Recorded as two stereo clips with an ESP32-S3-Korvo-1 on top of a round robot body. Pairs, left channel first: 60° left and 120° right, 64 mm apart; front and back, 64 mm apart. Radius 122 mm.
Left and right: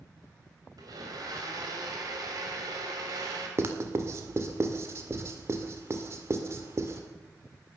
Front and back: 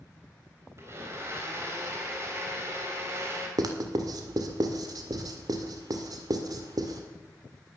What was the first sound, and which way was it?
A blender, 130° right.